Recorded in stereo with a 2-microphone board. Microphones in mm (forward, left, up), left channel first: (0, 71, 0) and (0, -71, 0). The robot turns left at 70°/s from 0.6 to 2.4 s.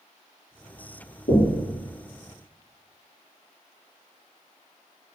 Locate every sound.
1.3 s knocking: 65° left (ahead or behind), 2.5 m; by 1.6 s 45° left (ahead or behind), 2.5 m